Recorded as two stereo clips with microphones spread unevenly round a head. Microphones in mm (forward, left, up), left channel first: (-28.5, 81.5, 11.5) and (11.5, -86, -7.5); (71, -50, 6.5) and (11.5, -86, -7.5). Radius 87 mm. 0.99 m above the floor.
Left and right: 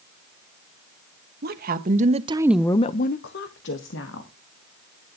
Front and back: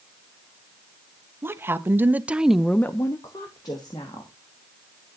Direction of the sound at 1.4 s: 100° right.